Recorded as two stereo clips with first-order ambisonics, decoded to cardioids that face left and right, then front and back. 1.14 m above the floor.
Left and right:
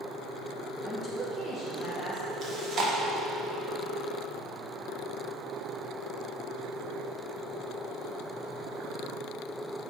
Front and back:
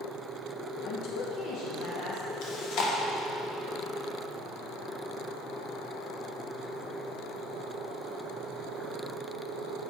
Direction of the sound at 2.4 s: 35° right.